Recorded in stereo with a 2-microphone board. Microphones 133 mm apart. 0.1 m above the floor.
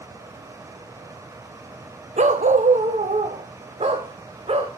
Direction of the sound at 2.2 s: 65° right (ahead or behind).